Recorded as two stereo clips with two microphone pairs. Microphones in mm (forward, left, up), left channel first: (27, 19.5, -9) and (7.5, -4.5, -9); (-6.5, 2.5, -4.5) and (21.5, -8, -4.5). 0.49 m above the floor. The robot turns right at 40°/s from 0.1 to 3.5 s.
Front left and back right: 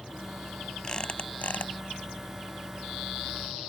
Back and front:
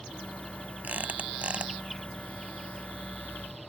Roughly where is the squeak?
Ahead.